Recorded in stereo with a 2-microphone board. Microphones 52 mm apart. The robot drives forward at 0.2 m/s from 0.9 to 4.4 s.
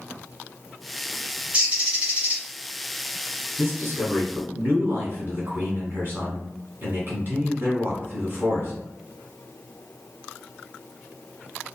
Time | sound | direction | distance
1.5 | a bird | 25° right (ahead or behind) | 1.3 m
3.6 | a man speaking | 45° right (ahead or behind) | 1.5 m